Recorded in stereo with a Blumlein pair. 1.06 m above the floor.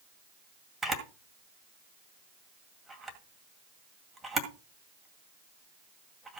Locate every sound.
0.8 s a camera shutter: 10° right, 2 m